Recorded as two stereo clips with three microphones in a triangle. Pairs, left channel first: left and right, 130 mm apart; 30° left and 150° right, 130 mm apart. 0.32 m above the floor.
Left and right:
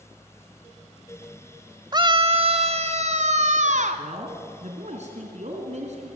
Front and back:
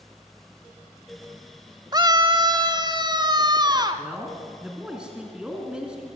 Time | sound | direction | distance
1.9 | a scream | 120° right | 1.4 m
4.0 | a man speaking | 65° right | 4 m